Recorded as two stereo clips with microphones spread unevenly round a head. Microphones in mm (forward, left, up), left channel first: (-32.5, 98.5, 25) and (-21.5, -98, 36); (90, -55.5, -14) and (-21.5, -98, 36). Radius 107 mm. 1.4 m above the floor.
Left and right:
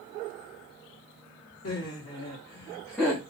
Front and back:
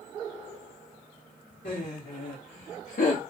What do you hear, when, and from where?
1.6 s laughter: 55° left, 1.0 m; by 3.2 s 5° right, 0.7 m